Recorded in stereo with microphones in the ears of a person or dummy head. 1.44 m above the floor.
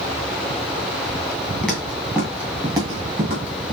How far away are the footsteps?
About 1.7 m.